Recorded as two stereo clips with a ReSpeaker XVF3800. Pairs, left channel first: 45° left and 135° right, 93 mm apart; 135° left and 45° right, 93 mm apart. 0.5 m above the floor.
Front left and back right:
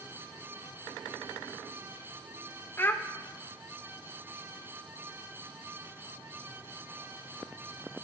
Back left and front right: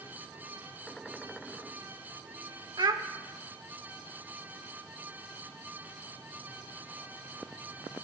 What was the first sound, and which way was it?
A child speaking, 15° right.